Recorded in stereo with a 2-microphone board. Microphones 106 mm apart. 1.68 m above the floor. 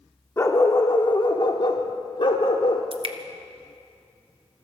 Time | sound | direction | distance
0.4 | a dog barking | 25° left (ahead or behind) | 1.5 m
2.9 | dripping | 55° right (ahead or behind) | 1.3 m